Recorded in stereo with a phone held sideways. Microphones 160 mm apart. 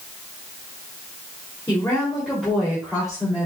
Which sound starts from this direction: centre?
A woman speaking, at 1.7 s.